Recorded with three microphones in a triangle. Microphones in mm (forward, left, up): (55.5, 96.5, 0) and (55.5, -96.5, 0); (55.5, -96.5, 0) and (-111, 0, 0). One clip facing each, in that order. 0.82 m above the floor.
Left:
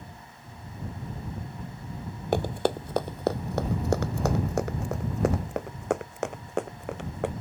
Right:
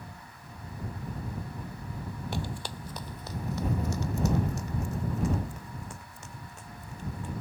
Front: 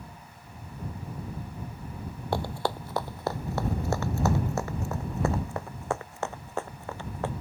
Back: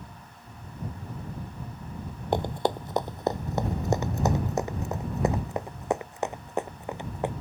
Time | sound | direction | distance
2.3 | running footsteps | 85° left | ?